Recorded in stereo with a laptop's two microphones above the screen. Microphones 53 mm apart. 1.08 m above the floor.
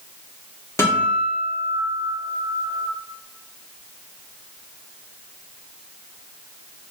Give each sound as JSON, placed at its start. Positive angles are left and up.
{"t": 0.8, "sound": "a guitar", "side_deg": 65, "distance_m": 0.8}